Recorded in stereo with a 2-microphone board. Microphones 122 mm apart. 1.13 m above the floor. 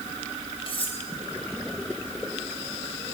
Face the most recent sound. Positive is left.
turn(degrees=50)  # may be behind; listen again after turning